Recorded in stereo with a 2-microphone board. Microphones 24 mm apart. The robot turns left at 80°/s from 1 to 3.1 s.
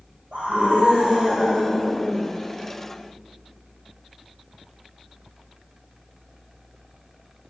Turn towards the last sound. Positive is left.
turn(degrees=80)